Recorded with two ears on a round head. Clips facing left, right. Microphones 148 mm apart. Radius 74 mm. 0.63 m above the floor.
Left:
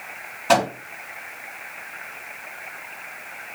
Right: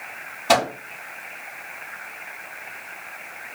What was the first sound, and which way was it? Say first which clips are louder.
A microwave: left 1 dB; 15° right (ahead or behind).